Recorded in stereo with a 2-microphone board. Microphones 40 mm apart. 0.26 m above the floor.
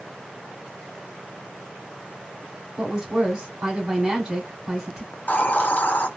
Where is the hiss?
40° left (ahead or behind), 0.5 m.